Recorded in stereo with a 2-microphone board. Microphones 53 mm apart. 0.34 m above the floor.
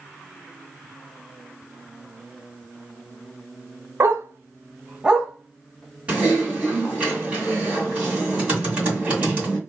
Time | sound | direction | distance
4.0 | a dog barking | 60° right (ahead or behind) | 0.7 m
6.1 | typing on a keyboard | 25° right (ahead or behind) | 2 m